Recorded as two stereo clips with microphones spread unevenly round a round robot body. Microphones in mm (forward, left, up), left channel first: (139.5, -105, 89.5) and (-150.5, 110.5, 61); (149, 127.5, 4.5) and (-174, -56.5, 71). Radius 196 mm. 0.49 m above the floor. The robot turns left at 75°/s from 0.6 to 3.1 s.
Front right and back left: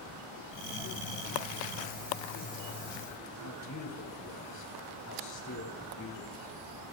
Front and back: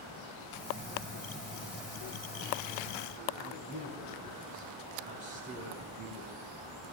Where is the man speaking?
75° right, 6 m.